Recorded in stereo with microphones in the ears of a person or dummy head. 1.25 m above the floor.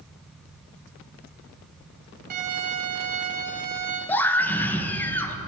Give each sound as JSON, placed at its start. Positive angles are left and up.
{"t": 2.3, "sound": "a violin", "side_deg": -45, "distance_m": 1.8}
{"t": 4.1, "sound": "a scream", "side_deg": 10, "distance_m": 1.2}